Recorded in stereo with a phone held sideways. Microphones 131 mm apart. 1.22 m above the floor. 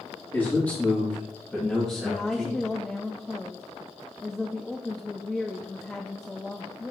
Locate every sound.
0.3 s a man speaking: 20° left (ahead or behind), 3 m; by 2.6 s 5° right (ahead or behind), 2 m
2.0 s a woman speaking: 5° left (ahead or behind), 0.5 m